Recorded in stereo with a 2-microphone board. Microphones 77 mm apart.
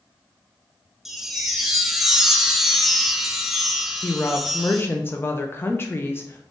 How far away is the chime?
About 0.5 m.